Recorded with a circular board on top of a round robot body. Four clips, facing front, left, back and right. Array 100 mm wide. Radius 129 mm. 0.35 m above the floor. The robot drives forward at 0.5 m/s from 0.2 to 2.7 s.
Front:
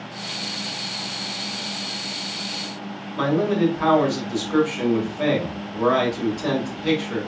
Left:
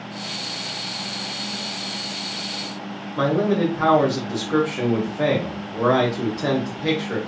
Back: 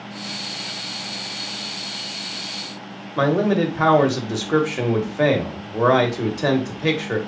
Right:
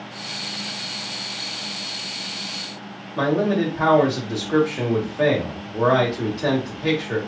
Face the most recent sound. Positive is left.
turn(degrees=-170)